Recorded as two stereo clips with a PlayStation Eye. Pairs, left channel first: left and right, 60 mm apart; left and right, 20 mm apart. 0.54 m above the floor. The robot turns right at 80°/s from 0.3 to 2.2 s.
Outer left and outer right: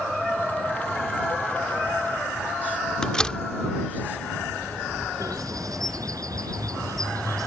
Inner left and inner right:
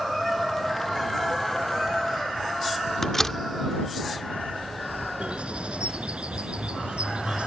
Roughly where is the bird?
Right.